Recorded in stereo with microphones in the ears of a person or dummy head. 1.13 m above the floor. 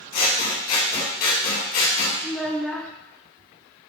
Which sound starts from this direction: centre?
A child speaking, at 2.2 s.